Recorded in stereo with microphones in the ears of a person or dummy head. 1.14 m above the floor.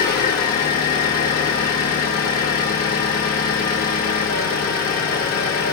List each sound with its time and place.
0.0 s an engine running: 50° left (ahead or behind), 0.9 m